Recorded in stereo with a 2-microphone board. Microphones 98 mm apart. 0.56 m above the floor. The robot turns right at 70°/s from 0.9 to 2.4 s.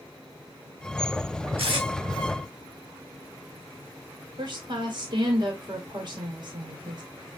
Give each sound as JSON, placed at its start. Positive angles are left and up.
{"t": 1.6, "sound": "tape being pulled", "side_deg": -70, "distance_m": 3.0}
{"t": 4.4, "sound": "a woman speaking", "side_deg": -50, "distance_m": 1.7}